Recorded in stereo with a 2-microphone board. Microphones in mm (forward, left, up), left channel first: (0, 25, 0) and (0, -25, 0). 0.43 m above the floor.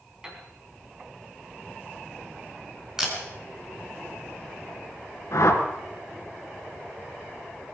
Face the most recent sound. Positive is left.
turn(degrees=80)